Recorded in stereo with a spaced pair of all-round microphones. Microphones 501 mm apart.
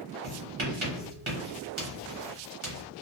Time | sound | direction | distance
0.2 | writing | 70° right (ahead or behind) | 1.2 m